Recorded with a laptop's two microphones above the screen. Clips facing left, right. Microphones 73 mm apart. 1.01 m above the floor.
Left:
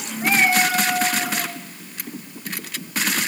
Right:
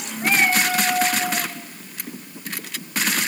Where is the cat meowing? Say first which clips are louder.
Left 1 dB; 5° left (ahead or behind), 3 m; by 1.5 s 30° left (ahead or behind), 3.5 m.